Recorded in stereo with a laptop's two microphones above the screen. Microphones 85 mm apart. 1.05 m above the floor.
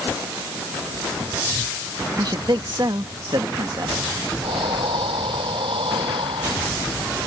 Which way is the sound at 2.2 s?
55° right (ahead or behind).